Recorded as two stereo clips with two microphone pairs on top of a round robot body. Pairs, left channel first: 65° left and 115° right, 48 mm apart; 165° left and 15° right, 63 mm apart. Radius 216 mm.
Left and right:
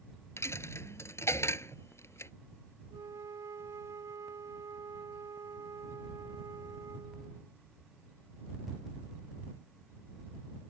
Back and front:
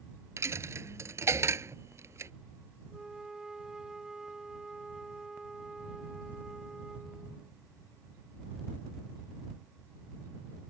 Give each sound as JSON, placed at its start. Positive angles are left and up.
{"t": 0.4, "sound": "a dropped coin", "azimuth_deg": 35}
{"t": 2.9, "sound": "a flute", "azimuth_deg": -95}